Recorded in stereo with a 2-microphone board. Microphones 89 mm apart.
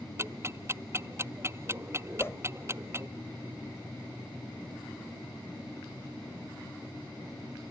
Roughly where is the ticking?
Right.